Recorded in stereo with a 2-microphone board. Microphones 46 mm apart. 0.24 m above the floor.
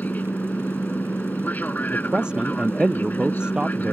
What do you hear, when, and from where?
0.0 s an aircraft: 40° left (ahead or behind)
1.9 s a man speaking: 20° right (ahead or behind)